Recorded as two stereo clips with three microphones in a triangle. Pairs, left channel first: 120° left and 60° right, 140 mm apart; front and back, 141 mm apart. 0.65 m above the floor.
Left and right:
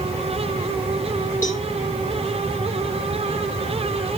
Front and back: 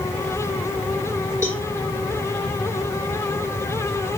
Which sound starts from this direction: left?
A cowbell, at 1.4 s.